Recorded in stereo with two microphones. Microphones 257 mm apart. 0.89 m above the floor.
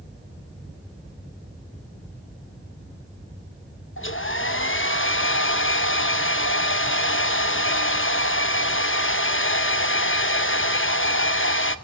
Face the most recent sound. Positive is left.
turn(degrees=50)  # may be behind; listen again after turning